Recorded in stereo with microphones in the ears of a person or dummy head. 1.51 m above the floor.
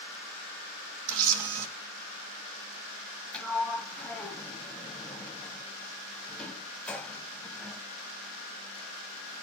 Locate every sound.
1.1 s a camera shutter: 85° right, 1.5 m
3.3 s a sliding door: 5° left (ahead or behind), 0.8 m